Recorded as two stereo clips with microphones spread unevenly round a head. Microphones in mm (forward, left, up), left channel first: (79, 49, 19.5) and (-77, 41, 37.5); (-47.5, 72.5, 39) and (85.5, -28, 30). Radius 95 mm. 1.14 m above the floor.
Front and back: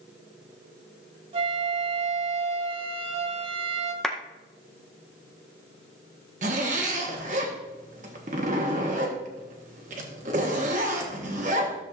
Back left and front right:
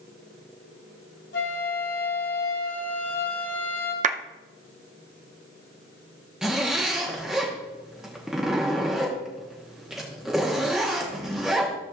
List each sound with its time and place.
1.3 s a flute: 145° left, 1.4 m
4.0 s a clap: 85° right, 0.6 m
6.4 s a zipper: 125° right, 1.0 m